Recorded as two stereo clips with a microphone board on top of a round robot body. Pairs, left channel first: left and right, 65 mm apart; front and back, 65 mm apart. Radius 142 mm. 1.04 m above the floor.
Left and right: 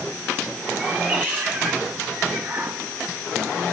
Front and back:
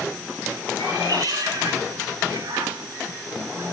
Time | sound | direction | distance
0.8 | a cat meowing | 165° right | 2 m